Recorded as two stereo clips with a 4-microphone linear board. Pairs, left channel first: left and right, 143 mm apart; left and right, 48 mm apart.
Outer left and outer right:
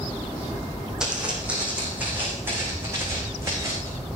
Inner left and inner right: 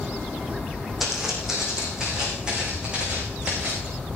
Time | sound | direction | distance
1.0 | footsteps | 5° right (ahead or behind) | 4.5 m